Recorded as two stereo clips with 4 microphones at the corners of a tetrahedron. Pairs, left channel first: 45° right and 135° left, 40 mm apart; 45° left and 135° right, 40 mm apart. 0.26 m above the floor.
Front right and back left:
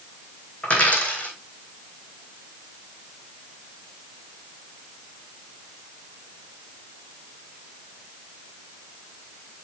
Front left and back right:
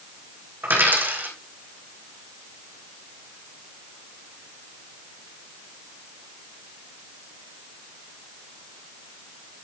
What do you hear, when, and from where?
0.6 s a dropped coin: 100° right, 4.5 m